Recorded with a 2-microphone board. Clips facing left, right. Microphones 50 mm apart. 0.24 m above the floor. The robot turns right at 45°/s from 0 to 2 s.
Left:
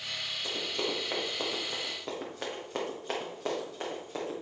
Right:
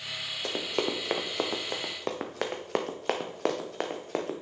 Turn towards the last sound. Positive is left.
turn(degrees=-65)  # may be behind; listen again after turning